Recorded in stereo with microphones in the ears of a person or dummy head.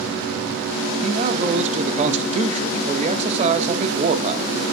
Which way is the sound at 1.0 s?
35° right (ahead or behind).